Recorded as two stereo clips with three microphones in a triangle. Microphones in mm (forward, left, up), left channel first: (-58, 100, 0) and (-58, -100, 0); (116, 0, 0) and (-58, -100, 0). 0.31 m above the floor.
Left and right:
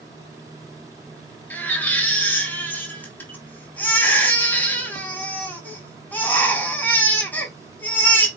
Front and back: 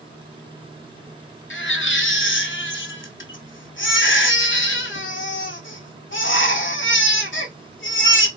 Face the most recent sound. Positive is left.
turn(degrees=10)